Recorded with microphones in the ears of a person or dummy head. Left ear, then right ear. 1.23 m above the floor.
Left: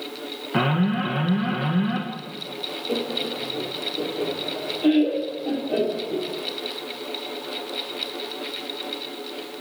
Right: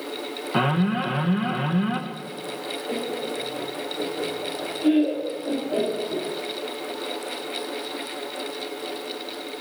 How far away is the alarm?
About 1.8 m.